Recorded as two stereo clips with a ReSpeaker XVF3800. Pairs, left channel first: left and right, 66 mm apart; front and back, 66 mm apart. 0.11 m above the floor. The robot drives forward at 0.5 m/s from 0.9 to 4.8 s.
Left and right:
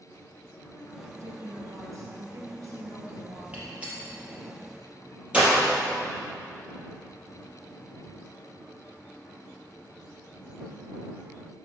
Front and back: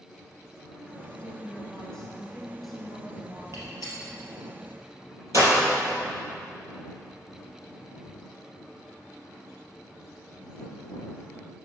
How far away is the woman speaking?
About 2.5 m.